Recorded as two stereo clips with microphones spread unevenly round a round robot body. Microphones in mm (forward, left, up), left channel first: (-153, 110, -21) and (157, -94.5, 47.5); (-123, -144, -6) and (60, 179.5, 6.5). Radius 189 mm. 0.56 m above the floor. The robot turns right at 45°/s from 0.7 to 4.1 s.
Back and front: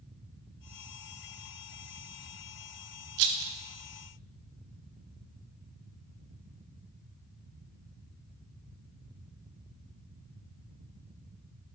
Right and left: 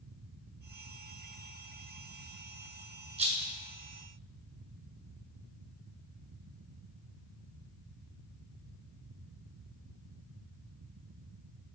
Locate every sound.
3.2 s a rattle: 15° right, 0.7 m; by 3.6 s straight ahead, 0.7 m